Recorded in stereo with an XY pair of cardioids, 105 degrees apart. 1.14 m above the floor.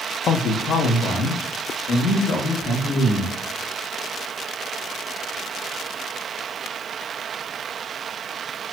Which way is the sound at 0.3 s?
60° left.